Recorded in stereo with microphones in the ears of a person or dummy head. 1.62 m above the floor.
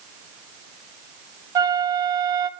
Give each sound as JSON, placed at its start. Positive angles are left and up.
{"t": 1.6, "sound": "a flute", "side_deg": -20, "distance_m": 0.5}